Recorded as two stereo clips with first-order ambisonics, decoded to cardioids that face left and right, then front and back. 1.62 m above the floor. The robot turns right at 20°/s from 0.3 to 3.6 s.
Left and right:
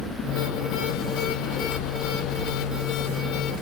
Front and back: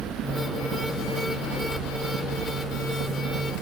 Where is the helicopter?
130° left; by 3.6 s 165° right.